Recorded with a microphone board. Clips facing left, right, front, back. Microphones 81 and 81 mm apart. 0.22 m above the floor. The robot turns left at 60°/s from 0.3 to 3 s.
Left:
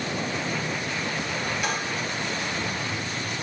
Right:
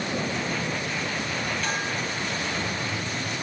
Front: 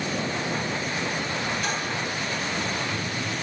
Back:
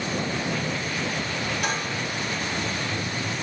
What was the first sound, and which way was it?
Dishes clattering, 165° left.